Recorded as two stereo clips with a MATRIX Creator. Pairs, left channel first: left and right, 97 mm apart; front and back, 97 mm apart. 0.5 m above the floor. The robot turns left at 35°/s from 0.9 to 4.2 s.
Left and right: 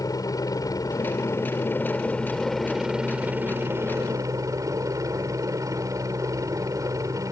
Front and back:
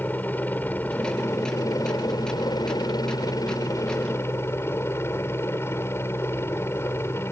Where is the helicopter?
60° left; by 7.3 s 55° right.